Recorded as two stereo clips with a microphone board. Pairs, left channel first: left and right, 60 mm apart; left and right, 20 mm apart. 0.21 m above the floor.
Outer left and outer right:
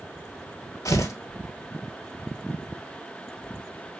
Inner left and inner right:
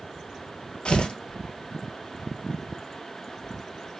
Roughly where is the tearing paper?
Left.